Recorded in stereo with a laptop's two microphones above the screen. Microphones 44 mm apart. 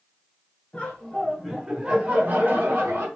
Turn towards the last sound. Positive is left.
turn(degrees=-60)  # may be behind; listen again after turning